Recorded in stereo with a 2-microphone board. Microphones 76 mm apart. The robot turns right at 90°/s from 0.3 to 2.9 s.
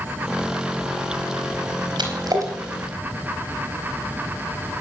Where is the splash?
75° right (ahead or behind), 4 m; by 2.5 s 40° right (ahead or behind), 4 m.